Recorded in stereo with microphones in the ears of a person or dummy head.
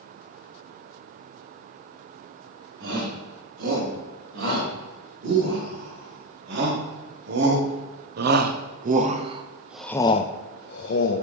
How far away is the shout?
About 4.5 m.